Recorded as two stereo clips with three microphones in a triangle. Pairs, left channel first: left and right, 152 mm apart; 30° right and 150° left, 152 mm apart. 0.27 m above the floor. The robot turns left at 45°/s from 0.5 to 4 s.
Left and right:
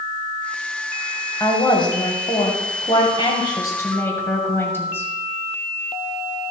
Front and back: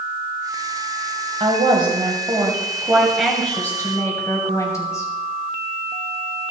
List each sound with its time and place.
1.4 s a woman speaking: 140° left, 1.8 m; by 5.1 s 25° left, 1.8 m